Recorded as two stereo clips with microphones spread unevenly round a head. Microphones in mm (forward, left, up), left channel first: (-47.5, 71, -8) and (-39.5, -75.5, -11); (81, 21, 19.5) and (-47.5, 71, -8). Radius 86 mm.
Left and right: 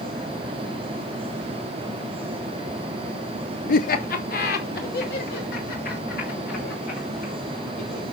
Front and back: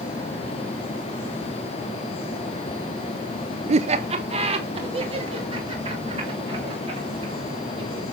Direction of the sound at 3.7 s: 120° left.